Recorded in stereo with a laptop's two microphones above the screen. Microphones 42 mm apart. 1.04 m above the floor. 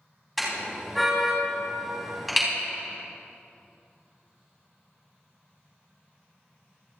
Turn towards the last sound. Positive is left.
turn(degrees=0)  # may be behind; listen again after turning